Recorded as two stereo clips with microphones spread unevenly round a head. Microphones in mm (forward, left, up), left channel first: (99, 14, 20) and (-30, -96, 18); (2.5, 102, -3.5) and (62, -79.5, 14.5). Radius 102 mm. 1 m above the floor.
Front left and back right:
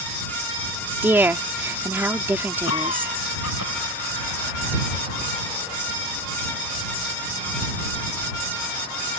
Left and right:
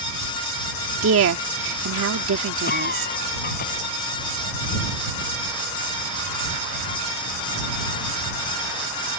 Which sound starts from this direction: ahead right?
A woman speaking, at 1.0 s.